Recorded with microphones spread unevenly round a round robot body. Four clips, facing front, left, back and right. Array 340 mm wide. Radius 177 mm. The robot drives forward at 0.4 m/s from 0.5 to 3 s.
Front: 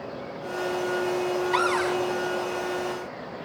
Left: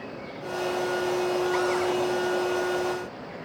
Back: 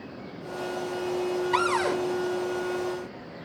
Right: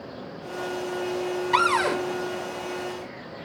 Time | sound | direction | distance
1.5 | a cupboard door | 100° right | 1.8 m